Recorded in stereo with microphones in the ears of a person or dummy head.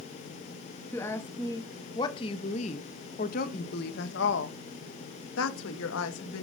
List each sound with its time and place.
0.9 s a woman speaking: 15° left (ahead or behind), 2.5 m; by 6.4 s 80° left, 2.5 m